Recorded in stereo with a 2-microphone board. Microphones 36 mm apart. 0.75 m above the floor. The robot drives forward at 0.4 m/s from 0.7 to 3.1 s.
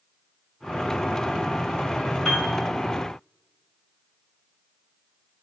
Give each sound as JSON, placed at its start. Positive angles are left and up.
{"t": 2.2, "sound": "a piano", "side_deg": 10, "distance_m": 1.5}